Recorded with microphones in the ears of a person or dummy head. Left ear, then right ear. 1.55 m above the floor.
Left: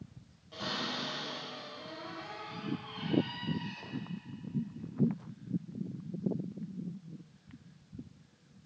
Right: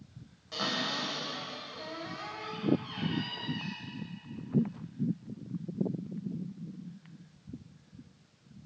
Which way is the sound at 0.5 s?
55° right (ahead or behind).